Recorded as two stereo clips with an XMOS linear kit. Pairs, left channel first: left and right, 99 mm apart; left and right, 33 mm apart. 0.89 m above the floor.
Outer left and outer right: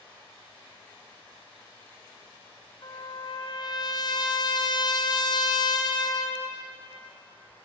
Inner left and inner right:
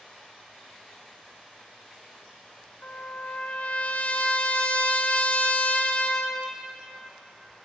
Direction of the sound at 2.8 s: 45° left (ahead or behind).